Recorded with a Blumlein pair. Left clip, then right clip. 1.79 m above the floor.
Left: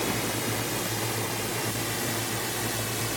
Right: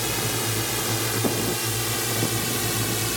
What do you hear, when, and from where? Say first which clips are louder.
0.0 s a drone: right 3 dB; 15° right; by 3.2 s 20° right